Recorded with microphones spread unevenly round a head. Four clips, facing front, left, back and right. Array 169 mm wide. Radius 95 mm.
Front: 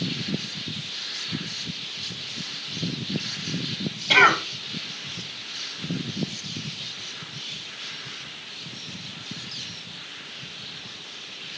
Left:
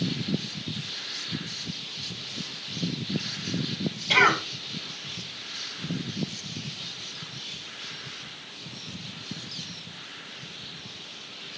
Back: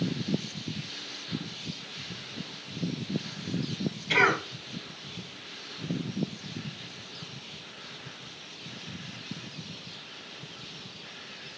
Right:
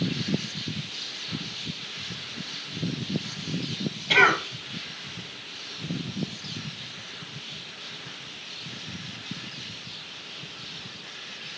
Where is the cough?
5° left, 2.5 m.